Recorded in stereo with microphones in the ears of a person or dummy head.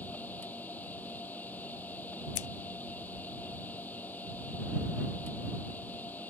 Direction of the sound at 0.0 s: 10° left (ahead or behind).